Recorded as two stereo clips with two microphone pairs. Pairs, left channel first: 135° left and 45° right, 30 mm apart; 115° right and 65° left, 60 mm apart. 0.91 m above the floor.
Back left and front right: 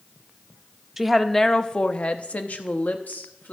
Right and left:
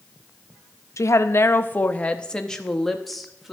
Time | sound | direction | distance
1.0 | a woman speaking | 125° right | 0.5 m